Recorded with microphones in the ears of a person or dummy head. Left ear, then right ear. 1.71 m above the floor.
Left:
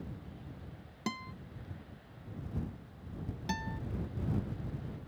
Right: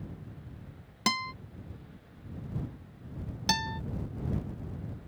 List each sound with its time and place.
1.1 s a guitar: 60° right (ahead or behind)
3.5 s a guitar: 50° right (ahead or behind)